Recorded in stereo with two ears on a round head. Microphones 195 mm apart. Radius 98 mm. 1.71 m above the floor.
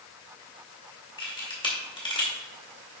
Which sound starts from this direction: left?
A camera shutter, at 1.2 s.